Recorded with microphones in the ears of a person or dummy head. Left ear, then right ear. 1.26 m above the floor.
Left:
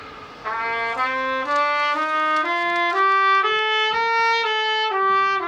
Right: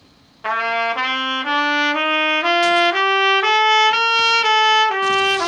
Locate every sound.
0.4 s a trumpet: 60° right (ahead or behind), 0.6 m